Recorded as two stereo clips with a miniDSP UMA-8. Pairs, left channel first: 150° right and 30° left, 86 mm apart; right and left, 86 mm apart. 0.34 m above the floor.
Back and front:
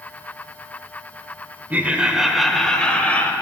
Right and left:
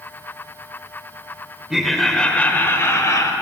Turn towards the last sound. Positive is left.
turn(degrees=-90)